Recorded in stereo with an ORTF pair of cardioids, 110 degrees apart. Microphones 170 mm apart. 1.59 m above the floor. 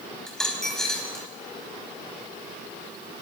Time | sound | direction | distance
0.3 | a dropped coin | 5° left | 5 m